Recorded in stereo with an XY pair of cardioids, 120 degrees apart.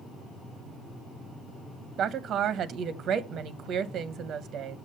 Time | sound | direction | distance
2.0 | a woman speaking | 60° right | 0.9 m